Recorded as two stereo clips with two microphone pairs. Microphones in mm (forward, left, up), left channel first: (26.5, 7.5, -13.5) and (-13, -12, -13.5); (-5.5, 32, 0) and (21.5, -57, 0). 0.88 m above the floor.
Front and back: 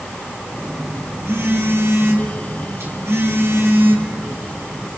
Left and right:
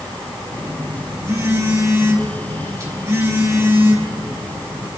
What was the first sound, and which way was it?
A phone buzzing, 125° right.